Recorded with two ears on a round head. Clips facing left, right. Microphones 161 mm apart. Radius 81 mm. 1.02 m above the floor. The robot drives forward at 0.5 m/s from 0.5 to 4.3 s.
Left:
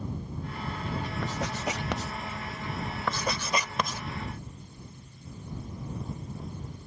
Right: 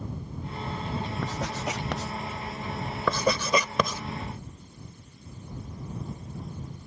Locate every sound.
1.2 s writing: centre (ahead or behind)
3.1 s writing: 85° right; by 4.0 s 75° right (ahead or behind)